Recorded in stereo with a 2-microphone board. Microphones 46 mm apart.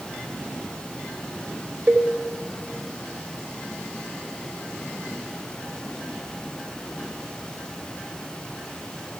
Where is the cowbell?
35° right (ahead or behind), 0.9 m.